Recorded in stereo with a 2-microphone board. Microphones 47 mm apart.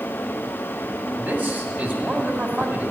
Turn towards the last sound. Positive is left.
turn(degrees=-40)  # may be behind; listen again after turning